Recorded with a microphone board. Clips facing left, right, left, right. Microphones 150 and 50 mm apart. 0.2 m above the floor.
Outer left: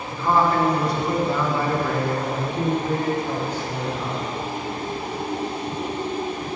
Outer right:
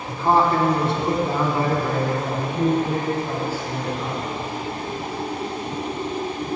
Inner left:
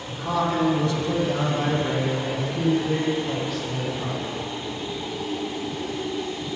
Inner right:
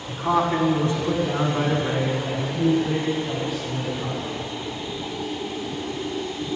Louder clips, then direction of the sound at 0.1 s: Outer right 2 dB, inner right 3 dB; 35° right (ahead or behind).